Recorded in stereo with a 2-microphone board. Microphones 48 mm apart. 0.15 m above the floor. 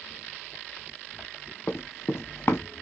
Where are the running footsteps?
50° left (ahead or behind), 1.1 m.